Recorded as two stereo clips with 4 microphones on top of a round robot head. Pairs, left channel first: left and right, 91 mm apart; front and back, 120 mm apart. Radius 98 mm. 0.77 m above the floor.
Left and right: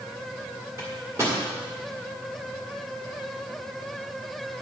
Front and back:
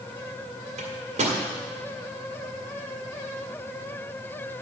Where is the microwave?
155° right, 1.9 m.